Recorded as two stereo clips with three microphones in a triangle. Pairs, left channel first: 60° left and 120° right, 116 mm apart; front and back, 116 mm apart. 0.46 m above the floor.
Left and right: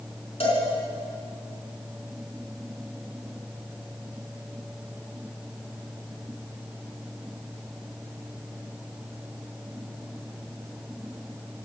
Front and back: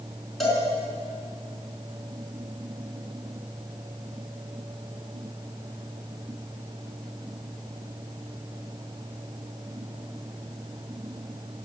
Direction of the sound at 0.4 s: 90° left.